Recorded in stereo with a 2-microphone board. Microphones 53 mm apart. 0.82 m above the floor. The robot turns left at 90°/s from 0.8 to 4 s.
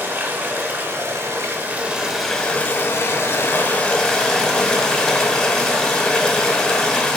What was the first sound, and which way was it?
Running water, 60° right.